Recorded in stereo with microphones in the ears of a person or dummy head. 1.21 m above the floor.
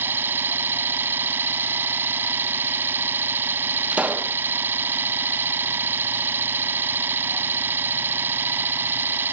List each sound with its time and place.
0.0 s an engine running: 10° right (ahead or behind)
3.9 s a pop: 10° right (ahead or behind)